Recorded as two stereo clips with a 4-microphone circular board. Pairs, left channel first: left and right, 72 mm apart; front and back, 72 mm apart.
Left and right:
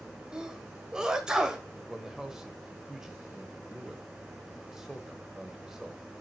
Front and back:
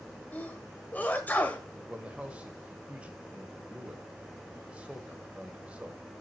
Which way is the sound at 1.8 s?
160° right.